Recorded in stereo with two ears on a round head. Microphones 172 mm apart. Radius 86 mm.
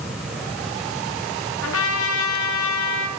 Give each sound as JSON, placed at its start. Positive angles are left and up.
{"t": 1.6, "sound": "a trumpet", "side_deg": 80, "distance_m": 1.1}